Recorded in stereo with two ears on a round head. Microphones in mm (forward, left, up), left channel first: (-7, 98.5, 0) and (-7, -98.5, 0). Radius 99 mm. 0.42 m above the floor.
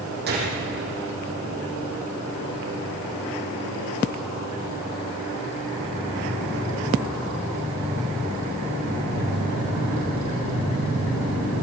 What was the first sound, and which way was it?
A gunshot, 50° right (ahead or behind).